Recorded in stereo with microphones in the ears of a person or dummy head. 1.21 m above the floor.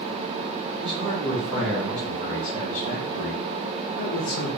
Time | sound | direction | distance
0.8 | a man speaking | 20° right (ahead or behind) | 1.2 m